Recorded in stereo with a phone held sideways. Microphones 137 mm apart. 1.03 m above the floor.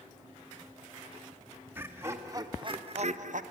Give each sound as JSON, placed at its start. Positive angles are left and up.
{"t": 1.7, "sound": "laughter", "side_deg": -15, "distance_m": 1.8}